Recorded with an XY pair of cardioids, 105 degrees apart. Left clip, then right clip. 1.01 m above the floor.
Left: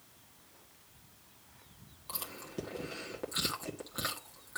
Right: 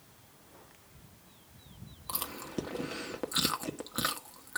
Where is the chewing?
40° right, 1.6 m.